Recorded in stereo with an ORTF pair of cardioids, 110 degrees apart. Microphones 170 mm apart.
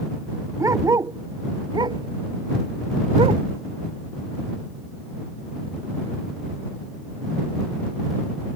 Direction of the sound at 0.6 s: 20° right.